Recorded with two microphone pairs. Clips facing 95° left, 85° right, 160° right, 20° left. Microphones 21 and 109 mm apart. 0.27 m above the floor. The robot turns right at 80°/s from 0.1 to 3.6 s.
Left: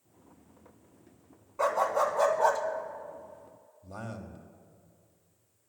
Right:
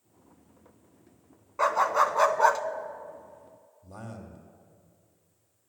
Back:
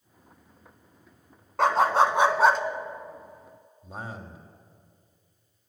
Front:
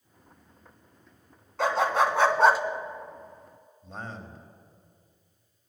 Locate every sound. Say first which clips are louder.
1.6 s a dog barking: right 3 dB, back 3 dB; 140° right, 0.9 m; by 2.6 s 55° right, 0.9 m
3.8 s a man speaking: left 2 dB, back 1 dB; 135° left, 1.4 m